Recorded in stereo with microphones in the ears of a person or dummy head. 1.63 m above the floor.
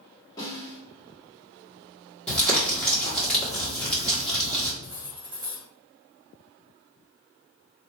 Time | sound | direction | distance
0.4 | a snare drum | 25° left (ahead or behind) | 1.9 m
2.3 | crumpling | 10° left (ahead or behind) | 1.8 m
4.8 | cutlery clinking | 25° right (ahead or behind) | 1.0 m